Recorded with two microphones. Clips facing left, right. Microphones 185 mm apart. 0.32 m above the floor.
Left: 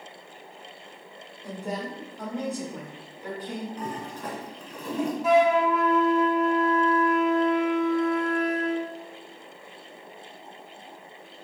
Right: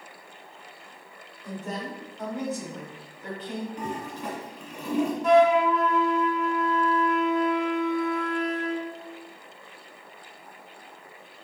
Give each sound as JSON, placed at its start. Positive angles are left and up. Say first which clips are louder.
{"t": 1.4, "sound": "a woman speaking", "louder": "left 1 dB", "side_deg": 15, "distance_m": 1.9}
{"t": 3.8, "sound": "a toilet flushing", "louder": "right 1 dB", "side_deg": -10, "distance_m": 1.3}
{"t": 5.2, "sound": "a flute", "louder": "right 1 dB", "side_deg": 5, "distance_m": 0.6}